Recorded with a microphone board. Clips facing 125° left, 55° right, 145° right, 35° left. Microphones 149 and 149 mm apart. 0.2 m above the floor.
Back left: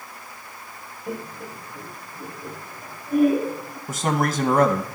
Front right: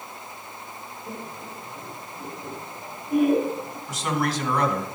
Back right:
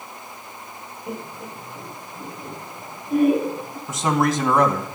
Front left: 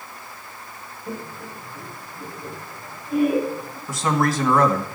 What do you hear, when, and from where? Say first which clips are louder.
1.1 s laughter: back left 6 dB, even; 160° left, 1.4 m; by 3.8 s 135° right, 2.5 m
3.9 s a man speaking: back left 3 dB, back right 1 dB; 150° left, 1.8 m